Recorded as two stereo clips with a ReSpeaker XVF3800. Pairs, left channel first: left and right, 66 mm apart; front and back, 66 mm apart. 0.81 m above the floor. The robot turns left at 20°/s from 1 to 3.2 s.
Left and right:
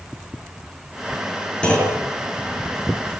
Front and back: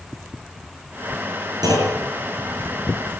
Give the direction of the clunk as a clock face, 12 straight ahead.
7 o'clock.